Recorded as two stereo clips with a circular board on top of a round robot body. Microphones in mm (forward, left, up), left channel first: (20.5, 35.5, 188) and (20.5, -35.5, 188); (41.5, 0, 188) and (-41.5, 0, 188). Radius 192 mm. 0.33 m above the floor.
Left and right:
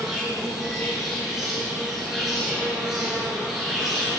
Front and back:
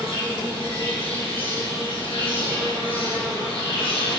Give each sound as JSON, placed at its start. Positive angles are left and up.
{"t": 0.0, "sound": "an insect", "azimuth_deg": -5, "distance_m": 4.5}